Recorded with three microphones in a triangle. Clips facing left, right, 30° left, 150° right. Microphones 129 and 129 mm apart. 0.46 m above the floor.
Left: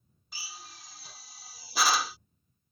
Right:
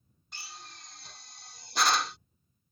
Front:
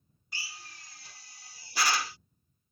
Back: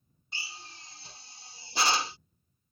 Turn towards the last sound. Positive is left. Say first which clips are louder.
# even, back 1 dB
turn(degrees=175)